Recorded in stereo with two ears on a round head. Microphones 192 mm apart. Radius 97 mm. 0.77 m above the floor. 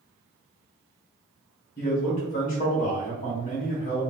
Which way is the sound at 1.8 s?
40° left (ahead or behind).